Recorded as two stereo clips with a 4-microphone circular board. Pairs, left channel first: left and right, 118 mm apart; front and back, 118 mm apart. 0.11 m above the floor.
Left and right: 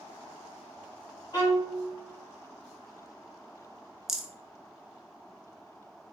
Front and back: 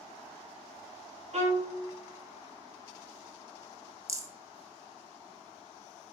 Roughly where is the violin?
Behind left.